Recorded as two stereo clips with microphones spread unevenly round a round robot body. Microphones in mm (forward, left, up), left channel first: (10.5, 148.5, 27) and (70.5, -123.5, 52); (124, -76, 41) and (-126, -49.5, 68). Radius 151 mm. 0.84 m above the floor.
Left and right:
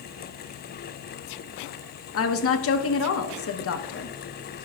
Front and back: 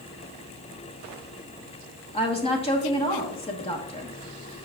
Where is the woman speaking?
60° left, 1.1 m.